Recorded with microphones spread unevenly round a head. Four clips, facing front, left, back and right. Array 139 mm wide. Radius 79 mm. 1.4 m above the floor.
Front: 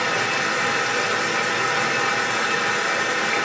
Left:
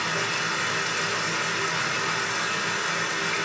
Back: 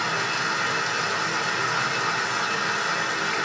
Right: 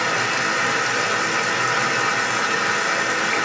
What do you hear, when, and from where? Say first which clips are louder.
0.0 s running water: right 6 dB, front 3 dB; 50° right, 2.5 m